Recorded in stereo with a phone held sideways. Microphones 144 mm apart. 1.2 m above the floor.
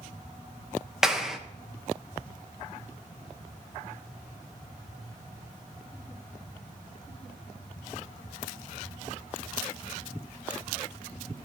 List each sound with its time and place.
1.0 s a clap: 5° right (ahead or behind), 0.7 m